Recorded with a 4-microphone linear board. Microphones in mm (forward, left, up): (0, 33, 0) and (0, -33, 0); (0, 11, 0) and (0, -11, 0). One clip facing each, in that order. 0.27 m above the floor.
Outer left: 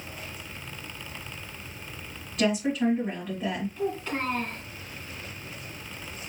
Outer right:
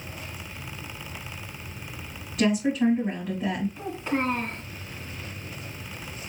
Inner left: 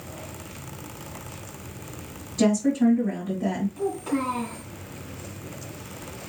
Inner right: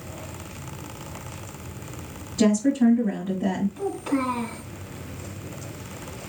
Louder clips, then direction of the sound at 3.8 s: Outer right 1 dB, inner right 1 dB; 20° right (ahead or behind).